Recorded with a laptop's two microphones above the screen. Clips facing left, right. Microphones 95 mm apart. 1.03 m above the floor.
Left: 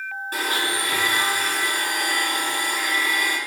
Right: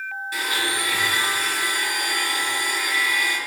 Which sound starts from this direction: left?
A blender, at 0.3 s.